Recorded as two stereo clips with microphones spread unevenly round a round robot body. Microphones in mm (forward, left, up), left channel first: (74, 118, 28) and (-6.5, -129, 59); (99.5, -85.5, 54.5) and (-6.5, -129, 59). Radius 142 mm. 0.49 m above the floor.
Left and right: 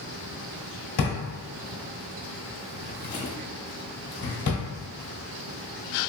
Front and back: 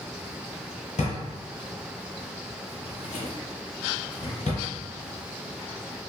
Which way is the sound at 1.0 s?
60° left.